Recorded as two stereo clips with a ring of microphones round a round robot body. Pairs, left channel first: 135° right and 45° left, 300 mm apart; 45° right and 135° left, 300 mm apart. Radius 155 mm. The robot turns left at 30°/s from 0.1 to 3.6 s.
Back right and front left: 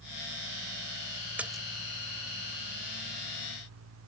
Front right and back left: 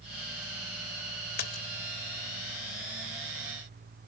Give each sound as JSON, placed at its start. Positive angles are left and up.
{"t": 1.4, "sound": "a splash", "azimuth_deg": -40}